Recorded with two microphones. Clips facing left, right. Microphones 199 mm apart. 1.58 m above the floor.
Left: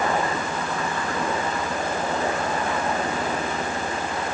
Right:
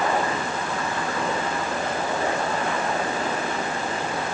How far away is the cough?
No cough in this recording.